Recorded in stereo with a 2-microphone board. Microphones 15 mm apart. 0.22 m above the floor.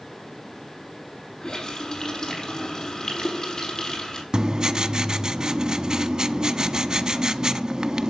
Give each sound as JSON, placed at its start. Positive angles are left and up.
{"t": 1.4, "sound": "a running tap", "side_deg": 50, "distance_m": 5.0}
{"t": 4.3, "sound": "writing", "side_deg": -55, "distance_m": 0.7}